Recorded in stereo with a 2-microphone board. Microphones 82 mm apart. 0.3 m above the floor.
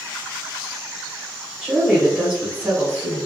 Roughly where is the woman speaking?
Centre.